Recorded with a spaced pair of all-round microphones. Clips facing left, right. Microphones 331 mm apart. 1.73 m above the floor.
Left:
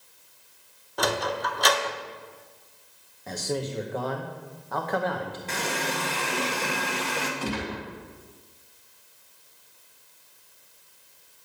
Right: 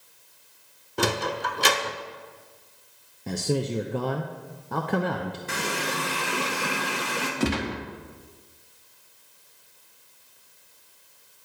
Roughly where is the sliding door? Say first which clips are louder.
Right 1 dB; right.